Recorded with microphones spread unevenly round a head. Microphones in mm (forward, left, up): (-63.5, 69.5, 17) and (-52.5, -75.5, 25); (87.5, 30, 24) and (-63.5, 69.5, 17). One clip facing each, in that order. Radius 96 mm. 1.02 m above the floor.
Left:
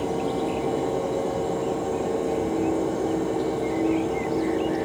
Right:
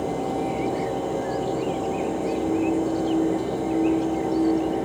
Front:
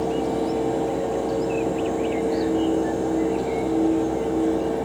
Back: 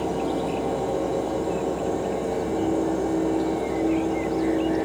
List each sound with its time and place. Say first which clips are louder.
0.0 s a fan: even, front 2 dB; 75° right, 8 m